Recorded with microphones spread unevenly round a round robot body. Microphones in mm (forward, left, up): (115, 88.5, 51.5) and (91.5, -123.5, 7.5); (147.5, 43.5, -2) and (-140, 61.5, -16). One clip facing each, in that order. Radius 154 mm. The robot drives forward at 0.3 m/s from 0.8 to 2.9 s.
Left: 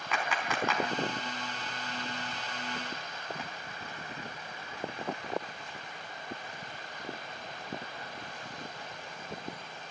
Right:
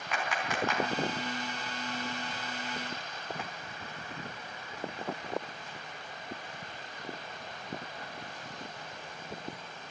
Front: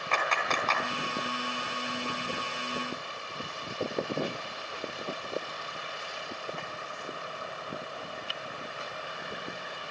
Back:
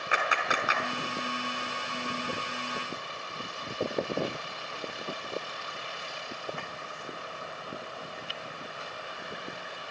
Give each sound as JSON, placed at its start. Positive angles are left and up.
{"t": 0.1, "sound": "a clap", "azimuth_deg": 95, "distance_m": 4.5}